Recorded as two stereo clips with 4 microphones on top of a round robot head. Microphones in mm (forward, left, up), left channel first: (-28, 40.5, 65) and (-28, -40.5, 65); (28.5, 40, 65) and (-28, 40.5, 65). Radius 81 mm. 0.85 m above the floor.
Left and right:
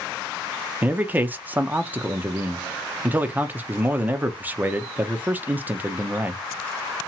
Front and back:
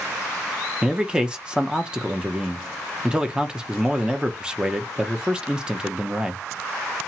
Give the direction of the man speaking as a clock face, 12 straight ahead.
4 o'clock.